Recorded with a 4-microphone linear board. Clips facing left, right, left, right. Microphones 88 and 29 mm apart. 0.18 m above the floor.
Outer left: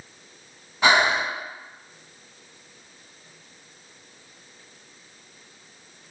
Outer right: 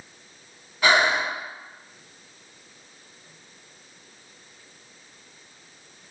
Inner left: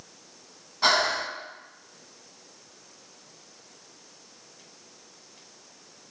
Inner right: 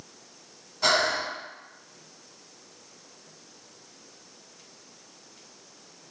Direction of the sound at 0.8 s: 25° left (ahead or behind).